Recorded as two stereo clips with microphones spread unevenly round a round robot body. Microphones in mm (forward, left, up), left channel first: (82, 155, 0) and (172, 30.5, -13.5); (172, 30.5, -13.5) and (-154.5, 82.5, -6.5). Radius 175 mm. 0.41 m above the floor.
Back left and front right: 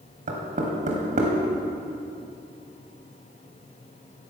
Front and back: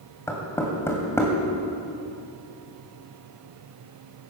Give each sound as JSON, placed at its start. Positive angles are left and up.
{"t": 0.3, "sound": "knocking", "azimuth_deg": -90, "distance_m": 1.8}